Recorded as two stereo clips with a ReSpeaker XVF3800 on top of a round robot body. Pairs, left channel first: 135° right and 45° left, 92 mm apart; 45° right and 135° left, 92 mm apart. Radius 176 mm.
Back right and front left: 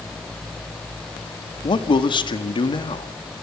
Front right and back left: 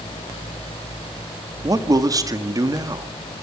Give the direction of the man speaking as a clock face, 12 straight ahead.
6 o'clock.